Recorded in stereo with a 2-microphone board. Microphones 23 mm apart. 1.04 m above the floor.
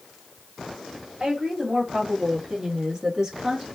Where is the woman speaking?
30° right (ahead or behind), 3.5 m.